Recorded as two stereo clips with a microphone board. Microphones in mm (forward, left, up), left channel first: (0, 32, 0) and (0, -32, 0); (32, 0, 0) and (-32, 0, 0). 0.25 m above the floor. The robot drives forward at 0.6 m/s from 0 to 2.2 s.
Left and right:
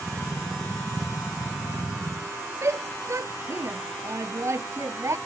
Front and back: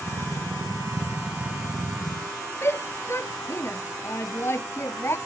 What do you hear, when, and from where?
2.6 s a shout: 50° right